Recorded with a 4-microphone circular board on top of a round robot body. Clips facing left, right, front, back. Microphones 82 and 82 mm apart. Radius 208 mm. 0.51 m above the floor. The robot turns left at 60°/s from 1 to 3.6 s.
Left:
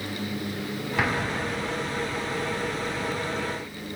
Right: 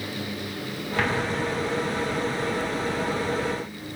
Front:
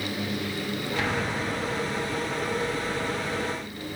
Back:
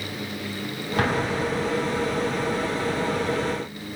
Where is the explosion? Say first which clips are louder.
Right 2 dB, back 7 dB; 175° left, 1.9 m; by 1.8 s 125° left, 1.9 m.